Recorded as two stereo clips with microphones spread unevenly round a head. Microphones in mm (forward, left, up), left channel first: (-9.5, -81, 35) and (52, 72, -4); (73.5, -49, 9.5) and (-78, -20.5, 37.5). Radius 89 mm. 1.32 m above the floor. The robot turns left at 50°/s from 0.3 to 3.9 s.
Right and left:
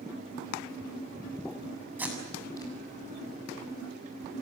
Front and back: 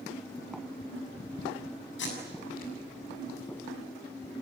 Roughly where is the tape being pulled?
Ahead.